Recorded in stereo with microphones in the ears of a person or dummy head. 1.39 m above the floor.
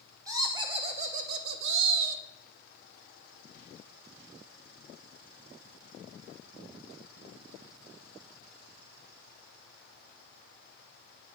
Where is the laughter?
15° right (ahead or behind), 1.1 m; by 2.2 s 80° right, 0.8 m.